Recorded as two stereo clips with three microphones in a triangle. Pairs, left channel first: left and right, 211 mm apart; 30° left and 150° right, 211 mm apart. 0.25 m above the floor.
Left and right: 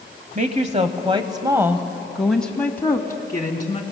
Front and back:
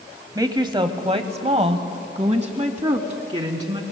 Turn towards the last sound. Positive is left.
turn(degrees=155)